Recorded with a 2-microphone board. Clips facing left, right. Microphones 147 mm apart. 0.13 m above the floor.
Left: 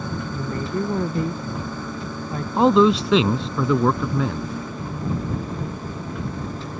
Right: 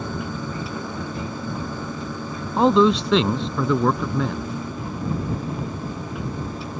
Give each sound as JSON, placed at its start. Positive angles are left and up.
{"t": 0.3, "sound": "a woman speaking", "side_deg": 55}
{"t": 2.6, "sound": "a man speaking", "side_deg": 5}